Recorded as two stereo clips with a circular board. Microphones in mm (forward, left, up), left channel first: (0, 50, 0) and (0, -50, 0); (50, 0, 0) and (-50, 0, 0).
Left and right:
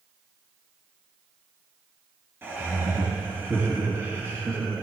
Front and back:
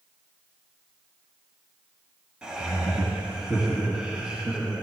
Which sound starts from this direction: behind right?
Laughter, at 2.4 s.